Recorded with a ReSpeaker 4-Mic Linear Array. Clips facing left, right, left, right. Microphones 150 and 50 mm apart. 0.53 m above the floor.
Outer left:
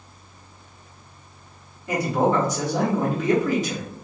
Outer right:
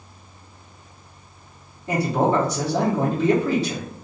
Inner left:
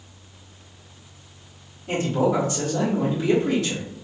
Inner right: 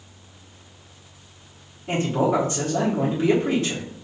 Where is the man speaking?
30° right (ahead or behind), 1.3 m.